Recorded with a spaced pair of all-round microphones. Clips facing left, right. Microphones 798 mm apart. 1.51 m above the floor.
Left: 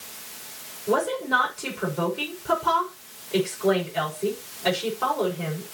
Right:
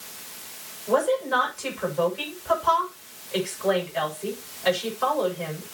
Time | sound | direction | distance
0.9 | a woman speaking | 65° left (ahead or behind) | 6 m